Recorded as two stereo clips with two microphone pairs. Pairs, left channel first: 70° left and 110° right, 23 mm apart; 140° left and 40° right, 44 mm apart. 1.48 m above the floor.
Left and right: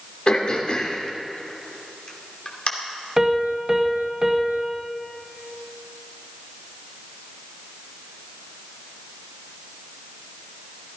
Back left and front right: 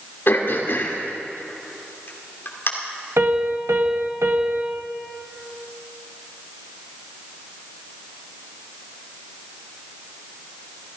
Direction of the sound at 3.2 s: 40° right.